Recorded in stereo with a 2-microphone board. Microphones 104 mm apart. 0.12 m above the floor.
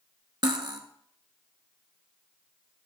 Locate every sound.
0.4 s cutlery clinking: 45° right (ahead or behind), 0.9 m